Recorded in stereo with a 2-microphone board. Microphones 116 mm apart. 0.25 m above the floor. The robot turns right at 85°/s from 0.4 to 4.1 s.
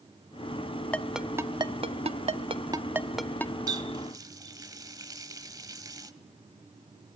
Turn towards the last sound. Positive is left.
turn(degrees=-30)  # may be behind; listen again after turning